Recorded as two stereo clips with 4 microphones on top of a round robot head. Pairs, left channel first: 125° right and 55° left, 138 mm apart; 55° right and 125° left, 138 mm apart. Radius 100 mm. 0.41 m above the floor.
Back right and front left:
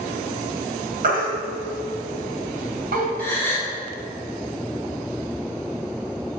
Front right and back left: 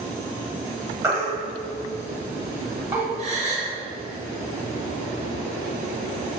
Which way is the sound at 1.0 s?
55° left.